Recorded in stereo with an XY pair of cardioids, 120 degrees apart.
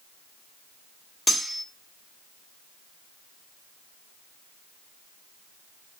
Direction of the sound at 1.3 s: 15° left.